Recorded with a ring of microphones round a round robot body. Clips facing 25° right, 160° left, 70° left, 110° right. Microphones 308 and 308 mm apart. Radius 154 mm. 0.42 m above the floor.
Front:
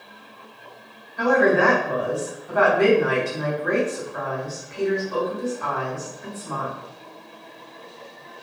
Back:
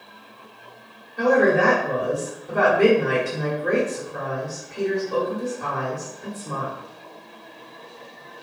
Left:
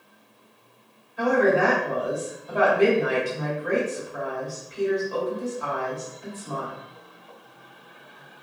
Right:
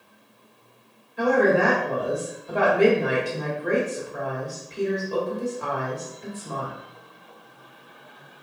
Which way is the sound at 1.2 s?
165° right.